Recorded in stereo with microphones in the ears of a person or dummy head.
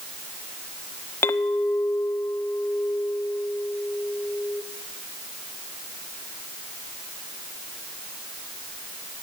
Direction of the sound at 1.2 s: 10° left (ahead or behind).